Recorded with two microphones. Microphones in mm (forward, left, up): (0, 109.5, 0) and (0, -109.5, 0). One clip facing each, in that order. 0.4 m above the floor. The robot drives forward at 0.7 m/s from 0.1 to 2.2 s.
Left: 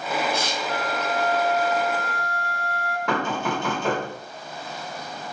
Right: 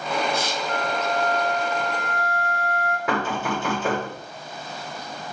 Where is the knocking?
5° right (ahead or behind), 1.4 m.